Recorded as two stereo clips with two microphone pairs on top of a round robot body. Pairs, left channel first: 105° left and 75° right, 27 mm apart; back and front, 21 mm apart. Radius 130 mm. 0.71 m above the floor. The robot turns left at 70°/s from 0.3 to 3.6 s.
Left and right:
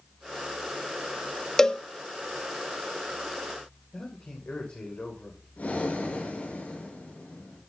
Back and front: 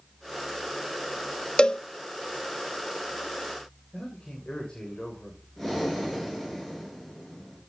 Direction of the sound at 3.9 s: 130° left.